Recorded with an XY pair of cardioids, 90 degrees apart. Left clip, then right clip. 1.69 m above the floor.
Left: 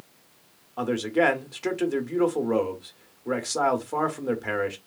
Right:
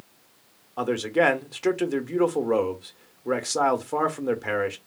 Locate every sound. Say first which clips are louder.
0.8 s a man speaking: right 1 dB; 20° right, 0.8 m